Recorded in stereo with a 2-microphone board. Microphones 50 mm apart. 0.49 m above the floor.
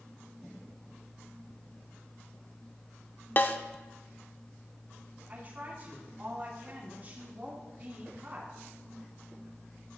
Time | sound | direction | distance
3.4 | a snare drum | 40° left (ahead or behind) | 0.5 m
5.3 | a woman speaking | 35° right (ahead or behind) | 3.5 m